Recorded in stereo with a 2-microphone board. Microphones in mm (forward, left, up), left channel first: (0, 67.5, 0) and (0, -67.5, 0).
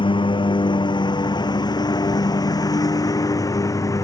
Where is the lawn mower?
35° left (ahead or behind); by 4.0 s 25° left (ahead or behind).